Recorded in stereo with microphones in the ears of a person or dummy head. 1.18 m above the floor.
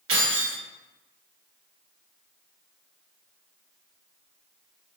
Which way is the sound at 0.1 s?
65° right (ahead or behind).